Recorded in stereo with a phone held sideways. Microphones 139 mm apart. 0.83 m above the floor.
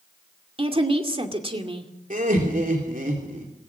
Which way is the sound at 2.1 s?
70° right (ahead or behind).